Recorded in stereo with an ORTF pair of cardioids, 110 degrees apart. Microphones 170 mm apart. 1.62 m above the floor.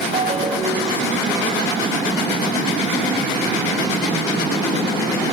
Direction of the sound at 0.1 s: 50° right.